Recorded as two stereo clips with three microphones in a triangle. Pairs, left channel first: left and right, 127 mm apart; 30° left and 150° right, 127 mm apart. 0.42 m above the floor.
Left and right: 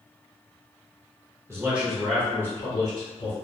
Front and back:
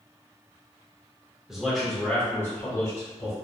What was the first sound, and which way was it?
A man speaking, 75° right.